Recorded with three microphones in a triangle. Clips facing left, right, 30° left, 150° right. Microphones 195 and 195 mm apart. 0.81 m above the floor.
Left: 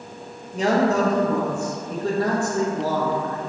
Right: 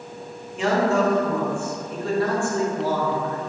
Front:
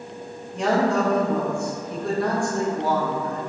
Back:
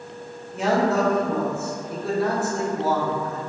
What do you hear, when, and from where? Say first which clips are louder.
0.5 s a man speaking: left 1 dB, even; 125° left, 0.7 m